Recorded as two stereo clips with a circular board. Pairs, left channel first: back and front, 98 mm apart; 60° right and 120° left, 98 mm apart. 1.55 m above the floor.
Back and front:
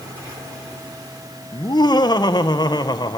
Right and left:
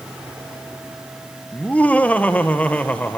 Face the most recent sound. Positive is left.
turn(degrees=-135)